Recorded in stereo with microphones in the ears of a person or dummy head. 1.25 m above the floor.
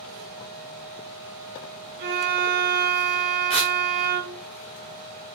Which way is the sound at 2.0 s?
45° right (ahead or behind).